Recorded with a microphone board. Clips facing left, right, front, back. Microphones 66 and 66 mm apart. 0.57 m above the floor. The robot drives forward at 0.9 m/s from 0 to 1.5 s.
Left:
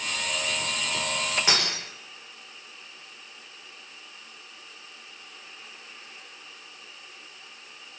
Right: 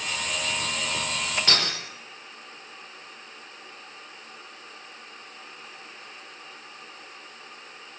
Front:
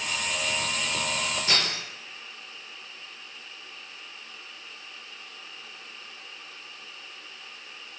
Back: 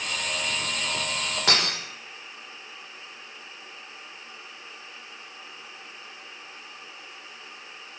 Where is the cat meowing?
I don't hear a cat meowing.